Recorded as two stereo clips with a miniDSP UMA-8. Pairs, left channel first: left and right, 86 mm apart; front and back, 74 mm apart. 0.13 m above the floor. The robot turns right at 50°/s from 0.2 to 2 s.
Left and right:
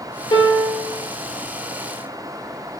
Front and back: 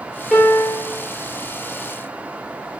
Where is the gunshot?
I don't hear a gunshot.